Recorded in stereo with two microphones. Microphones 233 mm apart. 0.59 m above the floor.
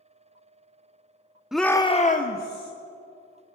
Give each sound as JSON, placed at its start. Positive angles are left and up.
{"t": 1.5, "sound": "a shout", "side_deg": -5, "distance_m": 0.7}